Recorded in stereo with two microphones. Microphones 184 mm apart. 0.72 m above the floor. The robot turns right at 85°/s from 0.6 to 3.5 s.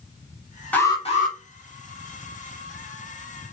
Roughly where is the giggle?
No giggle in this recording.